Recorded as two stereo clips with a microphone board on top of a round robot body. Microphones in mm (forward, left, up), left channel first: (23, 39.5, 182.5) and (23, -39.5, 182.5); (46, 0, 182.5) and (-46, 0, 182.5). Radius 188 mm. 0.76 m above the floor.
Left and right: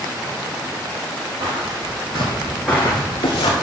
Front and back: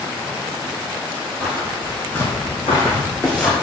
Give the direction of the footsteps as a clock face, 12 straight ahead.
3 o'clock.